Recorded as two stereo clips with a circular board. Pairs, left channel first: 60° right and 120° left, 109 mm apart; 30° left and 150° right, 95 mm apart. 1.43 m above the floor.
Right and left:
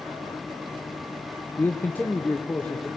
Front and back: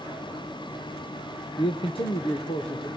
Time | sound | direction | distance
1.6 | a man speaking | 10° left | 0.8 m